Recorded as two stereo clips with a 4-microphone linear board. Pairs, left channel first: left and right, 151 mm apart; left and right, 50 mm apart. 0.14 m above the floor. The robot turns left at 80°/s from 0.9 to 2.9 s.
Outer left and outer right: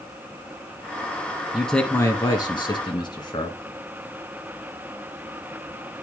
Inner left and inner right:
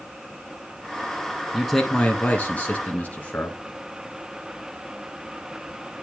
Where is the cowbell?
No cowbell in this recording.